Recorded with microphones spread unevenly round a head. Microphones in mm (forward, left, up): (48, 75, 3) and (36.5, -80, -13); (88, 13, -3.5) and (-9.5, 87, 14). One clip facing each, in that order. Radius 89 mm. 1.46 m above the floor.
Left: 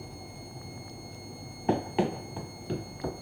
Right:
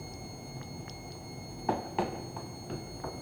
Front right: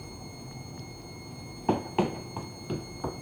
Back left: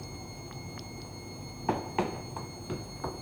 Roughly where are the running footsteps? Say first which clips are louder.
Left 5 dB, front right 4 dB; ahead left.